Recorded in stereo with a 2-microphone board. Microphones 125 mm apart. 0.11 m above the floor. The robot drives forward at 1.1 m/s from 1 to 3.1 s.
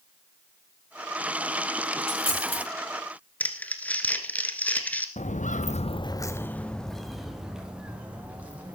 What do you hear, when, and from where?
2.0 s a dropped coin: 50° left (ahead or behind), 9 m
3.4 s crumpling: 10° left (ahead or behind), 1.6 m
5.2 s footsteps: 70° left (ahead or behind), 1.2 m; by 8.8 s 10° right (ahead or behind), 4.5 m